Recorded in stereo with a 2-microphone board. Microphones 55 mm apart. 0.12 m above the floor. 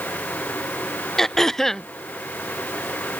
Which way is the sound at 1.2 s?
10° left (ahead or behind).